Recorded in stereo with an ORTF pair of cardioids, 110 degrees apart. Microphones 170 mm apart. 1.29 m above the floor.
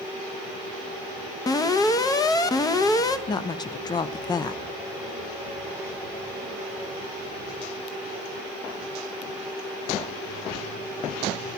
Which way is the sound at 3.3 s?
25° left.